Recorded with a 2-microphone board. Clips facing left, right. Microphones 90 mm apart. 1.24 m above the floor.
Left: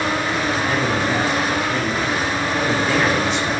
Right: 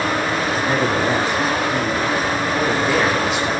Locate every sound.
0.7 s a man speaking: 30° right (ahead or behind), 3 m; by 3.5 s 5° right (ahead or behind), 4 m